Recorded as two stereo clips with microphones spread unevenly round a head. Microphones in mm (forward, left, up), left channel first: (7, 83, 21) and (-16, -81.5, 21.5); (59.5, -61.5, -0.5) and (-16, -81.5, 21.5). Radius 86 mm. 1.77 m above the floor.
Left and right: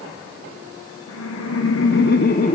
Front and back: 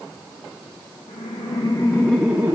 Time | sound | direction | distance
1.1 | laughter | 70° left | 1.6 m